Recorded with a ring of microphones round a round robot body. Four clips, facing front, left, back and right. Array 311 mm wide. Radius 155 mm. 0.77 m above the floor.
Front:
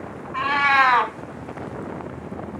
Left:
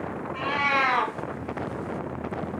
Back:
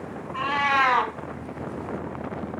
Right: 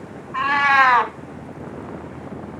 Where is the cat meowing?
65° right, 1.5 m.